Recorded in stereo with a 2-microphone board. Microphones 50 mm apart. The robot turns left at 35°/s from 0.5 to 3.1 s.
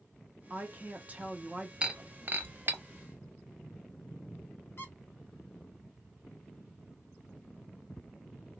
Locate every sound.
0.5 s a woman speaking: 105° right, 0.8 m; by 1.7 s 150° right, 0.8 m
1.8 s breaking glass: 20° right (ahead or behind), 0.6 m; by 2.8 s 55° right (ahead or behind), 0.6 m
4.8 s a squeak: 50° left (ahead or behind), 1.0 m